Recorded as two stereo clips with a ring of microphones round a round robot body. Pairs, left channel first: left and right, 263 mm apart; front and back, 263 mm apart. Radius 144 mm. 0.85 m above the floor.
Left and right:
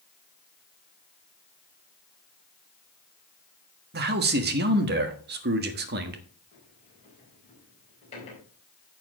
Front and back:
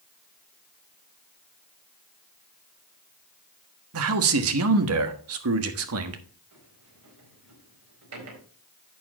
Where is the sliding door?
160° left, 4.5 m.